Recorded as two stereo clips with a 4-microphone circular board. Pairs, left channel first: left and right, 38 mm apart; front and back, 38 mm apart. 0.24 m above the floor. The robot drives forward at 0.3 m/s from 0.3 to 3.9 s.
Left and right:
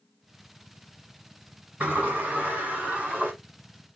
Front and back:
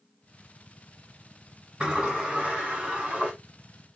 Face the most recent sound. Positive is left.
turn(degrees=-135)